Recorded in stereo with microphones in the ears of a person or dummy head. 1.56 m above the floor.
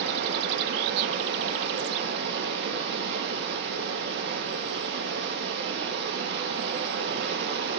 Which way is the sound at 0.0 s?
65° right (ahead or behind).